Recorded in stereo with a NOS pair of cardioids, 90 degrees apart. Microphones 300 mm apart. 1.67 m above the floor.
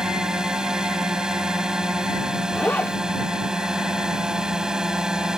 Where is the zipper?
5° left.